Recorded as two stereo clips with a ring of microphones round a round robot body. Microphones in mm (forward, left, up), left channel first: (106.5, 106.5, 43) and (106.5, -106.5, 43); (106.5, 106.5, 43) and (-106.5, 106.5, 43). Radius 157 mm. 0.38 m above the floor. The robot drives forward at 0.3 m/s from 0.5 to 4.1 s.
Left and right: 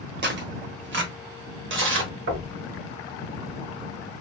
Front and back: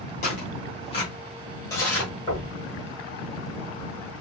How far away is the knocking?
About 1.7 m.